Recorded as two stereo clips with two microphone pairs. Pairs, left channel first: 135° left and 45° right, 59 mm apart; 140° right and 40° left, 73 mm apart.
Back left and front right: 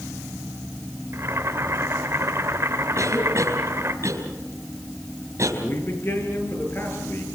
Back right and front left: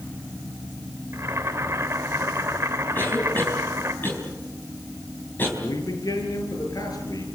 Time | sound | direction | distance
1.1 | boiling | 10° right | 2.5 m
3.0 | a cough | 75° right | 4.5 m
5.6 | a man speaking | 175° right | 8 m